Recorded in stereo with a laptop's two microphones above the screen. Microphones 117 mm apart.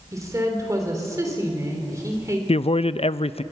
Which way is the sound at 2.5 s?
55° left (ahead or behind).